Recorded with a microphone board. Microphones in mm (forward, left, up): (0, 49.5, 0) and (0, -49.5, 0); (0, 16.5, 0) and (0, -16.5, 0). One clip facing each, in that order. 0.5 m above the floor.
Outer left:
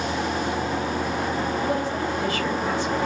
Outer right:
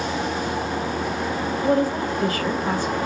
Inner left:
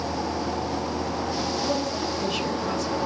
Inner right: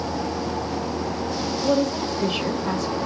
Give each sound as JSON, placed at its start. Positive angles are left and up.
{"t": 1.6, "sound": "a woman speaking", "side_deg": -45, "distance_m": 2.0}